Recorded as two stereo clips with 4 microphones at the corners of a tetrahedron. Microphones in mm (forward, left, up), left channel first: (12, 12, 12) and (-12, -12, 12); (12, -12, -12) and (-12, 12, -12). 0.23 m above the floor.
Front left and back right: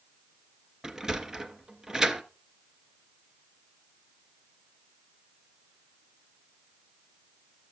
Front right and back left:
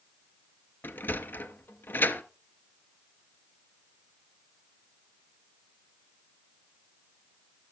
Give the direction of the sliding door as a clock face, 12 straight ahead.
2 o'clock.